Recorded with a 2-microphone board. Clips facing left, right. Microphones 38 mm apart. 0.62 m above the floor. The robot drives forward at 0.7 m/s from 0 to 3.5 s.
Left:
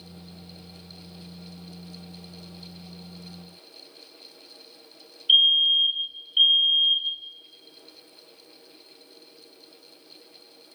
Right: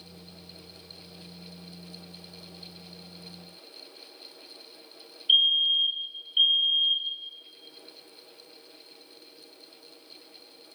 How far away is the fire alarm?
About 2 m.